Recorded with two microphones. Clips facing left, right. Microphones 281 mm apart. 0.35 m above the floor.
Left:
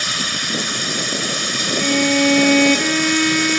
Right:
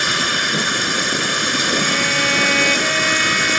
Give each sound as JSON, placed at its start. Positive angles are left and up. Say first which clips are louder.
{"t": 0.0, "sound": "running water", "louder": "right 4 dB", "side_deg": -70}
{"t": 1.8, "sound": "a violin", "louder": "left 7 dB", "side_deg": 55}